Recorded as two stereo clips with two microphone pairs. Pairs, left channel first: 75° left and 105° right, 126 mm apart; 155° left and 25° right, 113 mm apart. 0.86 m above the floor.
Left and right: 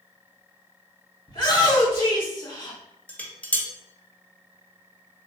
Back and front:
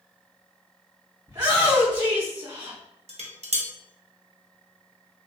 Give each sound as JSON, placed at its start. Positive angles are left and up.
{"t": 1.3, "sound": "a shout", "azimuth_deg": 25, "distance_m": 2.0}
{"t": 3.1, "sound": "dishes clattering", "azimuth_deg": 0, "distance_m": 0.7}